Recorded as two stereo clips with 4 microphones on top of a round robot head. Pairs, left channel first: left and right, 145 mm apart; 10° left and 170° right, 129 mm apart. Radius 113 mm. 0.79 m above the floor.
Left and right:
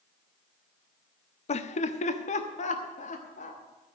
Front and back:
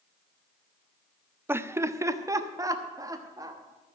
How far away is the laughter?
About 0.6 m.